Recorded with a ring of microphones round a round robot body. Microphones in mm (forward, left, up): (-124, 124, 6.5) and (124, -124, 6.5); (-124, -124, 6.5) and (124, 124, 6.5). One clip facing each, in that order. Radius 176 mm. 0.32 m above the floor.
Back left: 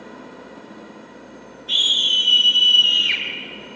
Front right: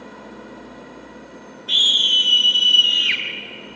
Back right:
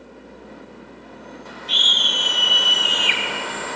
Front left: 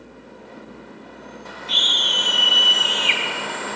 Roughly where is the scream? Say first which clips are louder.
Front right 1 dB, front left 1 dB; right.